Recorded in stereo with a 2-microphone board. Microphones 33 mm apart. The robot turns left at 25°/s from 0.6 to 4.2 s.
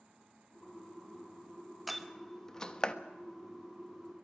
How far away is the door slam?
About 1.1 m.